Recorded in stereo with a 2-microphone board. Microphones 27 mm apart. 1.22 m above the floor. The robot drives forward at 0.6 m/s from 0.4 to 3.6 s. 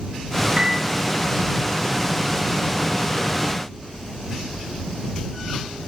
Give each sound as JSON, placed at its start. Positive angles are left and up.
{"t": 0.6, "sound": "a piano", "side_deg": -35, "distance_m": 0.6}